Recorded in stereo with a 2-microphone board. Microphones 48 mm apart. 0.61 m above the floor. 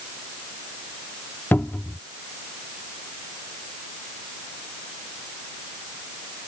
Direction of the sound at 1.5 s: 45° left (ahead or behind).